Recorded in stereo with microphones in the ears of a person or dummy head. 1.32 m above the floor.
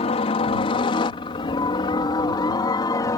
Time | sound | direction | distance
0.0 | a helicopter | 35° left (ahead or behind) | ?